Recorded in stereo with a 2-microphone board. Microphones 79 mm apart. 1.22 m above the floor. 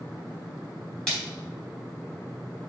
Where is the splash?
10° left (ahead or behind), 3.5 m.